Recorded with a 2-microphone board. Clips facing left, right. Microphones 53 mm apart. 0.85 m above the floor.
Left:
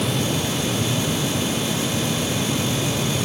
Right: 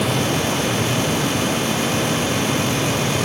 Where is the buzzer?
I don't hear a buzzer.